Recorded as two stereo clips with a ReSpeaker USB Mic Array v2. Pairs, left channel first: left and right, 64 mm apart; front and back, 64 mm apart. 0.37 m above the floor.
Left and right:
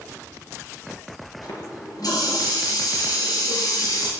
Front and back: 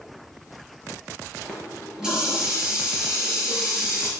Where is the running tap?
100° left, 5.5 m.